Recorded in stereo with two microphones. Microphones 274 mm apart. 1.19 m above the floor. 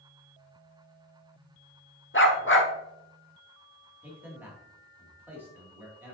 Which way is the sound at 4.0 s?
5° right (ahead or behind).